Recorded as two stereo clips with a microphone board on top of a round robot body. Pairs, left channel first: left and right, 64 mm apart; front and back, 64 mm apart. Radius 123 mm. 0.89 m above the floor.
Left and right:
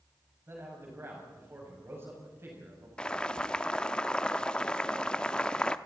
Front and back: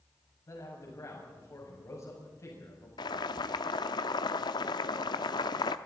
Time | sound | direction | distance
0.5 | a man speaking | 40° right | 7 m
3.0 | boiling | 15° left | 0.6 m